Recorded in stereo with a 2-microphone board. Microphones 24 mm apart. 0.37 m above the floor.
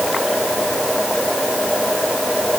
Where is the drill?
No drill in this recording.